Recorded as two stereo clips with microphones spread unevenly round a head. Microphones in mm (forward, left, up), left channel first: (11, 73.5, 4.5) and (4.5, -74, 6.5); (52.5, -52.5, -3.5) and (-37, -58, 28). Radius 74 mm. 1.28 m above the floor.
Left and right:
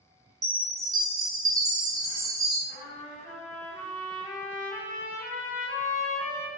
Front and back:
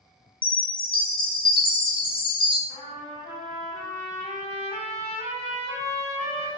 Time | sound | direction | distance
0.4 | a chime | 35° right | 0.7 m
2.7 | a trumpet | 45° left | 1.2 m